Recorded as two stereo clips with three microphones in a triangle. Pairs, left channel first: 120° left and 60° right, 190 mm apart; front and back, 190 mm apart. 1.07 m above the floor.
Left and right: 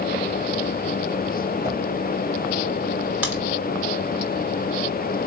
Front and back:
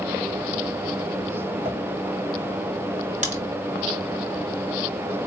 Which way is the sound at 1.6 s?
100° left.